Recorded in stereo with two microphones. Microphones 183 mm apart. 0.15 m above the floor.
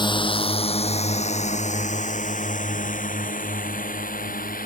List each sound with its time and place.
0.0 s a drone: 25° left (ahead or behind); by 4.7 s 50° left (ahead or behind)